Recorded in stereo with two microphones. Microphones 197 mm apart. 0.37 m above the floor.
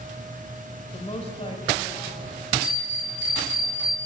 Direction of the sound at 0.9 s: 35° left (ahead or behind).